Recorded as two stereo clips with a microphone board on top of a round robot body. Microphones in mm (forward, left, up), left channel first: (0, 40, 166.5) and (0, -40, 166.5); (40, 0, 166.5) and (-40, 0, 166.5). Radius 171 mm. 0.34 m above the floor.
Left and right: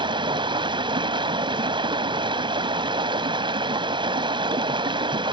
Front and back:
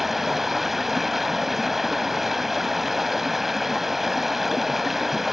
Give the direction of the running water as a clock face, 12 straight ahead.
3 o'clock.